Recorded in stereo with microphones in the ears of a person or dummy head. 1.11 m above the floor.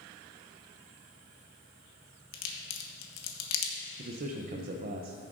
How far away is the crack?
About 1.4 m.